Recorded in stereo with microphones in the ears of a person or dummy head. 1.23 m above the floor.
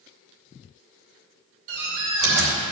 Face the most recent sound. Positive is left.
turn(degrees=-70)  # may be behind; listen again after turning